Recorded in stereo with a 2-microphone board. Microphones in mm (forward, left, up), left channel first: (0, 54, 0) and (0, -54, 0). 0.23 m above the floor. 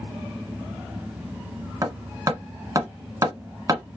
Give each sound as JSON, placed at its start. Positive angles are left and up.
{"t": 1.8, "sound": "hammering", "side_deg": -30, "distance_m": 1.1}